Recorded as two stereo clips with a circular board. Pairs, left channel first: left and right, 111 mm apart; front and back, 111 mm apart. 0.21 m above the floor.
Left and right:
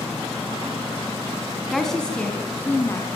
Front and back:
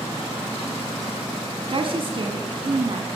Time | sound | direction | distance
1.7 | a woman speaking | straight behind | 2.0 m